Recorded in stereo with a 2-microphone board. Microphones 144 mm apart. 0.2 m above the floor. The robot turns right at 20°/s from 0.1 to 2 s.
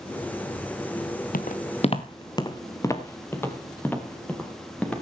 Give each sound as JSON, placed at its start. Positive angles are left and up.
{"t": 1.3, "sound": "footsteps", "side_deg": 75, "distance_m": 1.1}